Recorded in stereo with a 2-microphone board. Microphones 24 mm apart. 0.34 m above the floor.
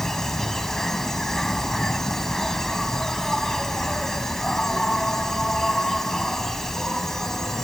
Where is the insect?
10° left (ahead or behind).